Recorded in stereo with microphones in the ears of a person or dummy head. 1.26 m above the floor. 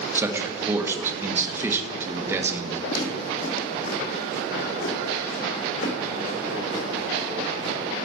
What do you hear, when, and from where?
0.1 s a man speaking: 15° right (ahead or behind), 1.8 m
2.9 s footsteps: 50° left (ahead or behind), 2.5 m; by 7.8 s 75° left (ahead or behind), 5 m